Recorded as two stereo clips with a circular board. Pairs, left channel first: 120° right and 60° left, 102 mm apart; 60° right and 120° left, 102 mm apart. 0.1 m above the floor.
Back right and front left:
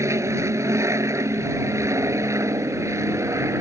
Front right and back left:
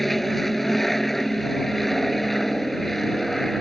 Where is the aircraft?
30° left.